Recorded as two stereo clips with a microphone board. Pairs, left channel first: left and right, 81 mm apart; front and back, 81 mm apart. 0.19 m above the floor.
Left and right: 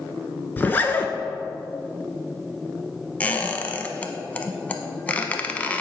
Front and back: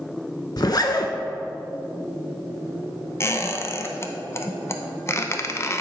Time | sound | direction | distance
0.6 | a zipper | 25° left | 0.6 m
3.2 | a squeak | 30° left | 0.5 m